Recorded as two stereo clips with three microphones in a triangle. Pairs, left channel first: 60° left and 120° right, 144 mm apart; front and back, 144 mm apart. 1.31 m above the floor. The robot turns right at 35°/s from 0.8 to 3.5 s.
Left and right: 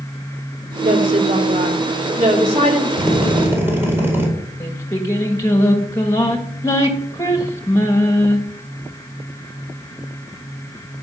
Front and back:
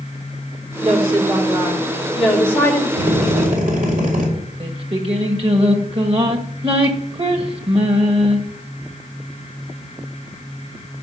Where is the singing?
130° left, 1.8 m.